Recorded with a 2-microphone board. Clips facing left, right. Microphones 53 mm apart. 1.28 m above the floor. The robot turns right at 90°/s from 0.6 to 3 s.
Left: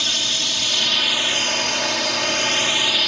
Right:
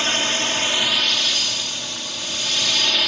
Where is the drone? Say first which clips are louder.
Right 3 dB; 40° right; by 3.1 s straight behind.